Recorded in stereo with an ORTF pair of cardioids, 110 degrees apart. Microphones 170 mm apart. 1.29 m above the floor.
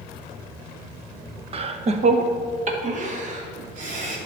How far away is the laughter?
About 0.9 m.